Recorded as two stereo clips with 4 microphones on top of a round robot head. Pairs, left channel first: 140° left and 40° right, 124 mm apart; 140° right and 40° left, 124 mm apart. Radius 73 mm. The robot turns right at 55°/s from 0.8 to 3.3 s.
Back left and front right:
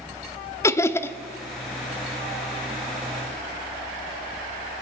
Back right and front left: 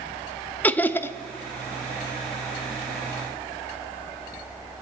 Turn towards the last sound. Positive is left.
turn(degrees=-60)